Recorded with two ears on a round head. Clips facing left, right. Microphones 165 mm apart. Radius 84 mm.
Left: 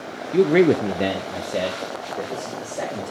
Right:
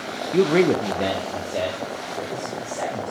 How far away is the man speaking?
About 0.6 m.